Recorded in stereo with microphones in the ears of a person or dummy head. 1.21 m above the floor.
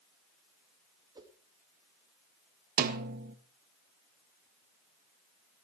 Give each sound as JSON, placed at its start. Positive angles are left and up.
{"t": 1.1, "sound": "a whoosh", "side_deg": -20, "distance_m": 2.5}
{"t": 2.8, "sound": "a snare drum", "side_deg": -50, "distance_m": 1.8}